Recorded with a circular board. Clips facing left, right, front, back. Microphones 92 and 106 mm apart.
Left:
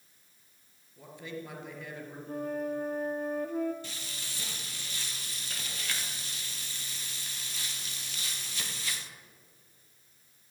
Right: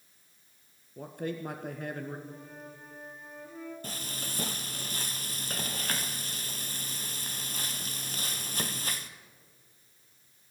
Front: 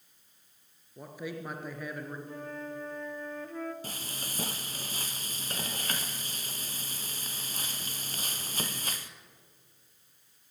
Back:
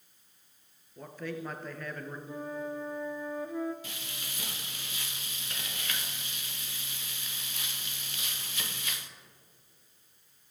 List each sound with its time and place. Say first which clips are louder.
1.0 s a man speaking: right 6 dB, back 1 dB; 75° right, 2.5 m
2.3 s a flute: left 13 dB, back 3 dB; 105° left, 1.2 m
3.8 s frying: right 4 dB, front 3 dB; 45° right, 1.2 m